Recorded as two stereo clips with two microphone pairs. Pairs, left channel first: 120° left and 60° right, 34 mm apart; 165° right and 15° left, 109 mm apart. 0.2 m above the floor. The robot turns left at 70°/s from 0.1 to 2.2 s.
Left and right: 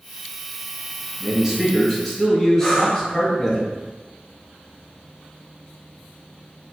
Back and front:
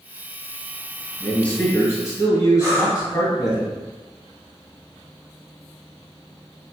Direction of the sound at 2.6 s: 30° left.